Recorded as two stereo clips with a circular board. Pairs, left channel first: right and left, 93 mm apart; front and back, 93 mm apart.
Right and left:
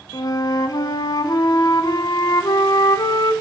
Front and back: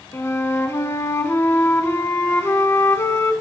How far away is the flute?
About 0.7 m.